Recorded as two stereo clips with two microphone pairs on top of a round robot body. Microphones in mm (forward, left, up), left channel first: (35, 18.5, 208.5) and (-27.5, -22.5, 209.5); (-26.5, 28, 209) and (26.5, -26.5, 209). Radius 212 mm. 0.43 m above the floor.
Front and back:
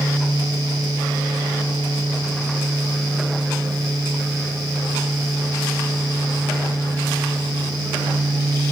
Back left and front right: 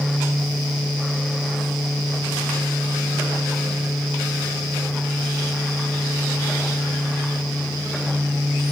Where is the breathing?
No breathing in this recording.